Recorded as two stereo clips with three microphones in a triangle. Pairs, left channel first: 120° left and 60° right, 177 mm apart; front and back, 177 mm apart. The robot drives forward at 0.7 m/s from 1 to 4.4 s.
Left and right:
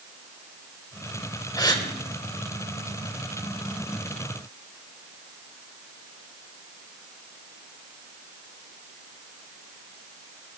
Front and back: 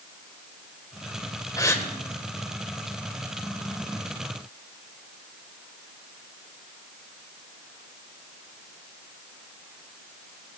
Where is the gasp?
60° left, 1.8 m; by 1.9 s 70° left, 1.7 m.